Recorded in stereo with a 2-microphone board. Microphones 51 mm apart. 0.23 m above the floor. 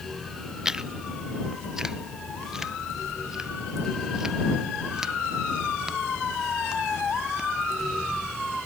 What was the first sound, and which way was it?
Chewing, 10° right (ahead or behind).